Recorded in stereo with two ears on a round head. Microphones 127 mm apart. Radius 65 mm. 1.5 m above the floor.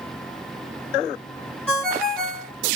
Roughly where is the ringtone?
Centre.